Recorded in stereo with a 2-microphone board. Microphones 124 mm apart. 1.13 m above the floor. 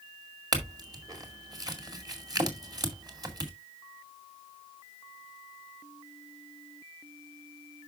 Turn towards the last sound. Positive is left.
turn(degrees=-35)  # may be behind; listen again after turning